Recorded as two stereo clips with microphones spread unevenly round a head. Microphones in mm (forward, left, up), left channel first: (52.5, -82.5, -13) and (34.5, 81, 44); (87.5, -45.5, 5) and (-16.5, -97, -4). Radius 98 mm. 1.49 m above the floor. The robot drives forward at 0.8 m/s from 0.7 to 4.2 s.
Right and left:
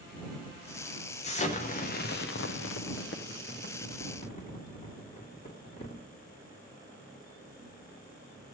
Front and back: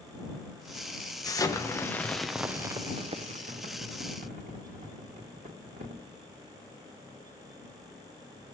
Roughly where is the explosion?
Ahead right.